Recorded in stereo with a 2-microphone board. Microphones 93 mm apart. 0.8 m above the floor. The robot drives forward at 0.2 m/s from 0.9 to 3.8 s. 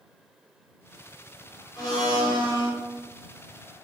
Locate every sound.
1.8 s a blender: 45° left (ahead or behind), 1.1 m; by 2.7 s 50° left (ahead or behind), 0.9 m